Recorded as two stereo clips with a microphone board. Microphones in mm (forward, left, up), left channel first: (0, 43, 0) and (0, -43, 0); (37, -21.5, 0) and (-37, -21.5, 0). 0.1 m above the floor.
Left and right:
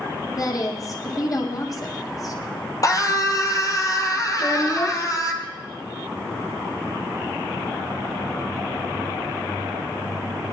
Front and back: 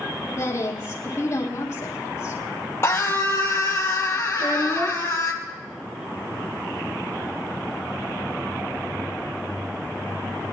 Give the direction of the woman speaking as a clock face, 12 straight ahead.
10 o'clock.